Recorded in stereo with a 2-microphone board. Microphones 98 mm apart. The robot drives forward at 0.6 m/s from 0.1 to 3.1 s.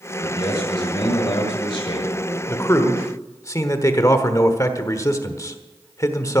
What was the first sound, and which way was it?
A man speaking, 50° left (ahead or behind).